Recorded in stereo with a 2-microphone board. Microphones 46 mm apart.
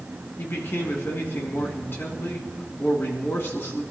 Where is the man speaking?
60° left (ahead or behind), 3 m.